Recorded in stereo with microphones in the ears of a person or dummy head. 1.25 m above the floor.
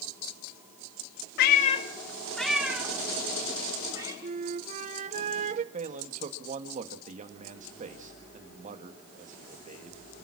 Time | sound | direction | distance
1.4 | a cat meowing | 60° left (ahead or behind) | 0.9 m
4.2 | a flute | 40° right (ahead or behind) | 0.8 m
5.7 | a man speaking | 35° right (ahead or behind) | 1.7 m